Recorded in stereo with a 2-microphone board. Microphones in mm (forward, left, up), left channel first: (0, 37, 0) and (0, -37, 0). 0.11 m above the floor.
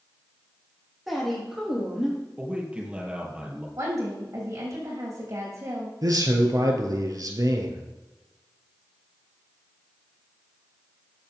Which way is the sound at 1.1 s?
Centre (ahead or behind).